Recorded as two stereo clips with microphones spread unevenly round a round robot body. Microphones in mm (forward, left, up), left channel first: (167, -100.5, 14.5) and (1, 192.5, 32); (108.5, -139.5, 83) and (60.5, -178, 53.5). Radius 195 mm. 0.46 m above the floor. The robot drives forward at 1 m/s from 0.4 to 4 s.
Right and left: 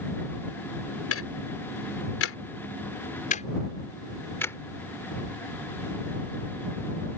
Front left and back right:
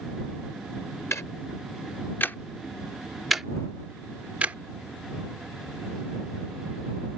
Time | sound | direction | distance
1.1 | ticking | 20° right | ?